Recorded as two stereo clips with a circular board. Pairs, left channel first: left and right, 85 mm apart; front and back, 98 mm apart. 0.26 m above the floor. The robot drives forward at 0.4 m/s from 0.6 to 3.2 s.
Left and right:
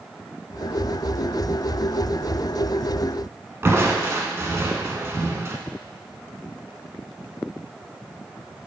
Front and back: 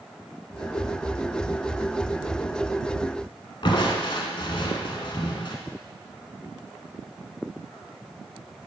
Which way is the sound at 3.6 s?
30° right.